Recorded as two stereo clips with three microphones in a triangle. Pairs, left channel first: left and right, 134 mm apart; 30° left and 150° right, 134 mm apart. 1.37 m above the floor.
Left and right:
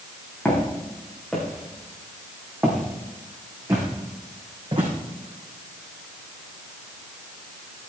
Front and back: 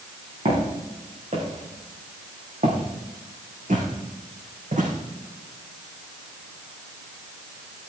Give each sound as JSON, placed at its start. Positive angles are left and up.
{"t": 0.5, "sound": "footsteps", "azimuth_deg": 170, "distance_m": 6.0}